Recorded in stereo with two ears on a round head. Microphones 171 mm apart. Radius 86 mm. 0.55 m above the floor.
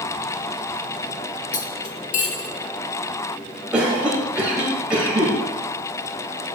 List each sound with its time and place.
1.5 s cutlery clinking: 45° left (ahead or behind), 1.0 m
3.7 s a cough: 5° right (ahead or behind), 3 m